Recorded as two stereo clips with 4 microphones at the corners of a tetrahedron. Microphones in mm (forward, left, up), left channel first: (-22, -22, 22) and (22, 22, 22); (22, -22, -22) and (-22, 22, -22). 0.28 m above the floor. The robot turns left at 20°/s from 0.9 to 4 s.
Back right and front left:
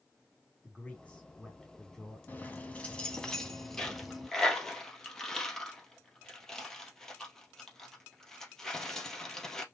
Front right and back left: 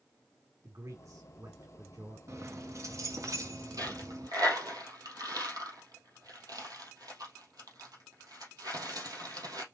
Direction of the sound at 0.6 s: 160° left.